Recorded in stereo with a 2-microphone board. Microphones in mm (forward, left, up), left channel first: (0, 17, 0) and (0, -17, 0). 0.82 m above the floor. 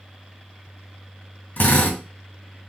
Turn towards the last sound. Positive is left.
turn(degrees=75)  # may be behind; listen again after turning